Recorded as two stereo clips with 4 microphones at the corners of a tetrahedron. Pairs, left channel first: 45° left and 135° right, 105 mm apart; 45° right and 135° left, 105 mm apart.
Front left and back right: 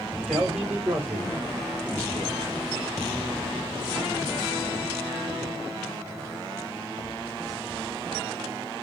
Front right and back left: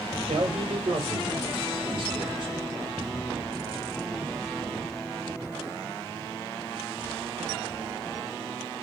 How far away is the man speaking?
About 4 m.